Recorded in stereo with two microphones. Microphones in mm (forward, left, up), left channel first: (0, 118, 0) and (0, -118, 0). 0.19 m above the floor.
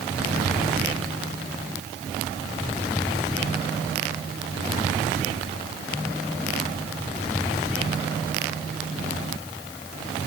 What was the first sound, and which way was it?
Only background noise.